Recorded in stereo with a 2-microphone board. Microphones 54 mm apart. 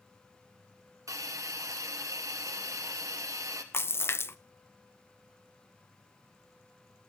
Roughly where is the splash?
Left.